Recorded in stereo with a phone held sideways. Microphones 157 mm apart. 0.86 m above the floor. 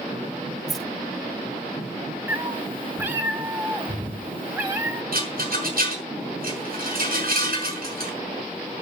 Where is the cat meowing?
15° right (ahead or behind), 1.8 m.